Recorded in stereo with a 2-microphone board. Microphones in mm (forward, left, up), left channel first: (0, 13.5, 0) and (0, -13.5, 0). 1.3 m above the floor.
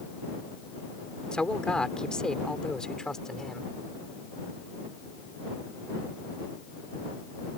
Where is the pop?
No pop in this recording.